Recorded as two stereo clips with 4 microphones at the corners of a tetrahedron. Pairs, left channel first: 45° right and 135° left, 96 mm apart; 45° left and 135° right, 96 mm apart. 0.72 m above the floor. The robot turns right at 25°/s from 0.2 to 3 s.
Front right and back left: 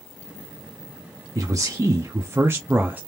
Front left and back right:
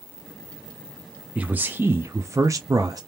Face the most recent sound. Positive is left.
turn(degrees=-165)